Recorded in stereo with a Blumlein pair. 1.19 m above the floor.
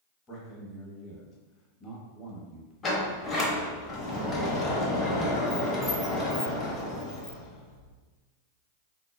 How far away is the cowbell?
No cowbell in this recording.